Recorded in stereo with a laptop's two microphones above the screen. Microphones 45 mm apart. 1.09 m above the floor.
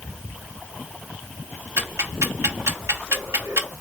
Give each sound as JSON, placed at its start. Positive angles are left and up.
{"t": 1.8, "sound": "ticking", "side_deg": -75, "distance_m": 0.9}